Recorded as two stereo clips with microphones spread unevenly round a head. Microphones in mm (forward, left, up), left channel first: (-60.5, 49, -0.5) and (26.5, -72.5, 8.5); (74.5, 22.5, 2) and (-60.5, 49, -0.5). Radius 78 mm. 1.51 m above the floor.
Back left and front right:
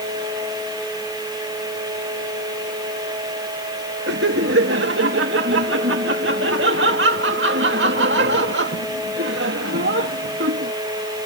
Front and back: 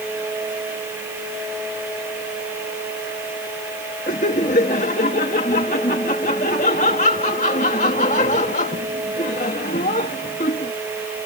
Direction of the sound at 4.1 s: 60° right.